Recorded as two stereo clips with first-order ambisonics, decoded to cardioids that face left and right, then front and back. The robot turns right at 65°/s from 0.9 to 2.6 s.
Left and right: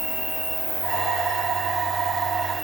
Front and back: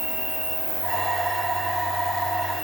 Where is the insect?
155° right, 4 m; by 2.6 s 45° right, 4 m.